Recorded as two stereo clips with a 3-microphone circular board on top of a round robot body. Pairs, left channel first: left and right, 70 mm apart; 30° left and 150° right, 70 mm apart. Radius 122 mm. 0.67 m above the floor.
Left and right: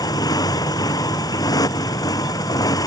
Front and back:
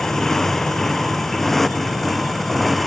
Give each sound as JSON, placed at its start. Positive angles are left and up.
{"t": 0.0, "sound": "a motorcycle", "azimuth_deg": 115}